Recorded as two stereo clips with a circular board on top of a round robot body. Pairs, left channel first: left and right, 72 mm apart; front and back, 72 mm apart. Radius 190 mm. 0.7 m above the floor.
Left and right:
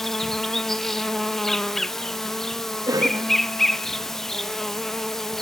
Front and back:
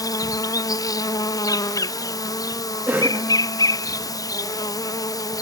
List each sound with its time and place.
0.0 s an insect: 5° left, 1.0 m
2.9 s a cough: 120° right, 1.6 m